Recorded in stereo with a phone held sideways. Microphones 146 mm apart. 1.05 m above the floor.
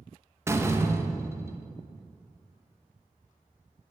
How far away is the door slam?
About 0.8 m.